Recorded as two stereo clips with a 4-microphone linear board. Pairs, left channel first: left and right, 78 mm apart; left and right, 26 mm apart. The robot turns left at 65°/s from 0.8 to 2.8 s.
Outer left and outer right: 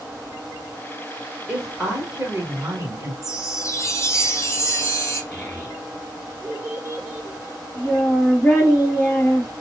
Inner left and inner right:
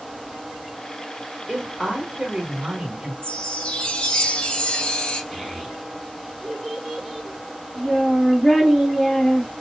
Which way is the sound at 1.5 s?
Centre (ahead or behind).